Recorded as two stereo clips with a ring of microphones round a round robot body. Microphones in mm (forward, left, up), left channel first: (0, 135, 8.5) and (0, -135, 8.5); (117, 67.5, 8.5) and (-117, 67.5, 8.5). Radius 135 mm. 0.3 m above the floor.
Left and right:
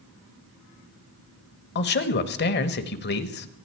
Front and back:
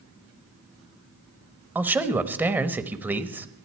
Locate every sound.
1.8 s a man speaking: 105° left, 1.1 m